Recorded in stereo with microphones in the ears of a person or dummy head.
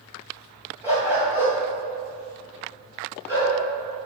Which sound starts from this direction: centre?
A dog barking, at 0.8 s.